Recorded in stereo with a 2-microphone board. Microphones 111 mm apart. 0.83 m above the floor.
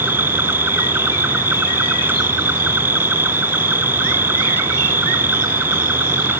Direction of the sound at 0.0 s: 20° right (ahead or behind).